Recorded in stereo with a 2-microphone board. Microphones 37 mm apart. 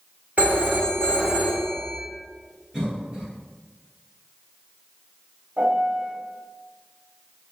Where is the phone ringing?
50° right (ahead or behind), 1.1 m.